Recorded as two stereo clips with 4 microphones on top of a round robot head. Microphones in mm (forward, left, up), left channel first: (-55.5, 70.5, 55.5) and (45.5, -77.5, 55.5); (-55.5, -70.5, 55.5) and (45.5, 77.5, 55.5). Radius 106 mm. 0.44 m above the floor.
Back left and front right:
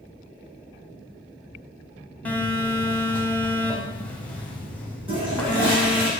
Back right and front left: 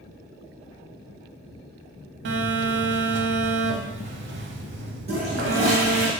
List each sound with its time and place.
2.2 s a phone buzzing: 40° left, 0.6 m
5.1 s a toilet flushing: 5° left, 1.9 m